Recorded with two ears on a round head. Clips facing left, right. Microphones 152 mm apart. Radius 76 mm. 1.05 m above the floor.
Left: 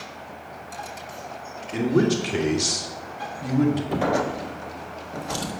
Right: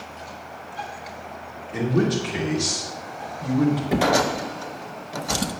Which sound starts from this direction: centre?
A drawer, at 3.9 s.